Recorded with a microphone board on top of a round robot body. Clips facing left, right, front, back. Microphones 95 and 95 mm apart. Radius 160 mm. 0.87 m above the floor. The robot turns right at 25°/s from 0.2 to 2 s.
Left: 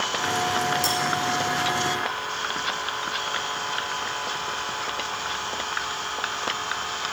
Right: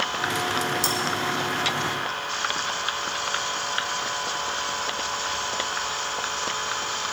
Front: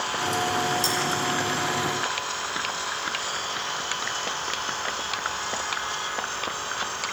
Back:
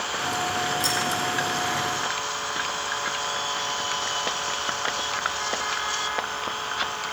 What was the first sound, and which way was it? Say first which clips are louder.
Cutlery clinking: left 1 dB, even; 65° right.